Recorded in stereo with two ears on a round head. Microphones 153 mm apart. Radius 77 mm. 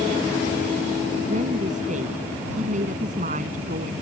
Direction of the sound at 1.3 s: 50° right (ahead or behind).